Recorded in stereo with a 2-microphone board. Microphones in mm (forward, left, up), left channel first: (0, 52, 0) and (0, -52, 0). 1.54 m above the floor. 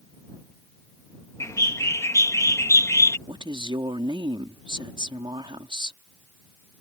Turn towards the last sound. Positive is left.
turn(degrees=-55)  # may be behind; listen again after turning